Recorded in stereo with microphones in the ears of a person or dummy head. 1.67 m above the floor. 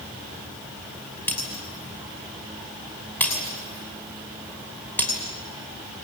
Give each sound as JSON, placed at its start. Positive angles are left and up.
{"t": 1.3, "sound": "breaking glass", "side_deg": 10, "distance_m": 5.5}